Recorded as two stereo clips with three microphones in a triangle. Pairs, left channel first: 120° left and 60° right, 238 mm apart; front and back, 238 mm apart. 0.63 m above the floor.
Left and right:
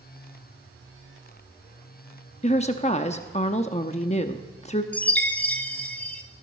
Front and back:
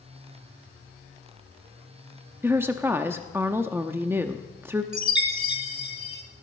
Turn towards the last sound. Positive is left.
turn(degrees=-155)